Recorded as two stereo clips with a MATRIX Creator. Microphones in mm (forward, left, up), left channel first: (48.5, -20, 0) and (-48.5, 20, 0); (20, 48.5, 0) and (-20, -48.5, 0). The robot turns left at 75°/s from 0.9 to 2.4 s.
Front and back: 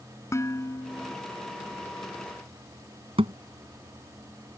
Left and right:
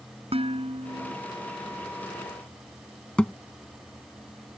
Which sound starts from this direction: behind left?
A thud, at 3.2 s.